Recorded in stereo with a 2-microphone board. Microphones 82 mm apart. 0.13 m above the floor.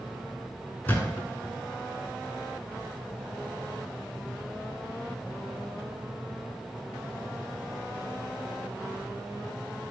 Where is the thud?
25° left (ahead or behind), 0.7 m.